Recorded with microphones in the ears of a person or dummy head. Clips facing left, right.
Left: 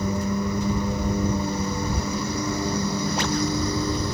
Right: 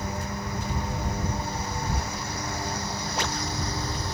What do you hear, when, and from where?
0.0 s a lawn mower: 80° left; by 4.2 s 75° left (ahead or behind)